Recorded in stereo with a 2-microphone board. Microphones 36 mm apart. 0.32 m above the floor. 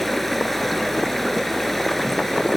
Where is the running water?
5° left (ahead or behind), 1.7 m.